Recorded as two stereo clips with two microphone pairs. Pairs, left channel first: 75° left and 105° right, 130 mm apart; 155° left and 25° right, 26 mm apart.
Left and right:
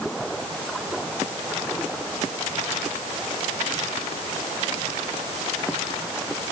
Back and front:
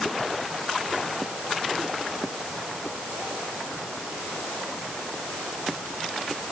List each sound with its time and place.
Only background noise.